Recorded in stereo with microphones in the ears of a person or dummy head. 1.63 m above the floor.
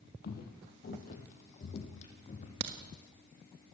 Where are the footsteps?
50° left (ahead or behind), 2.5 m; by 2.5 s 35° left (ahead or behind), 3.5 m.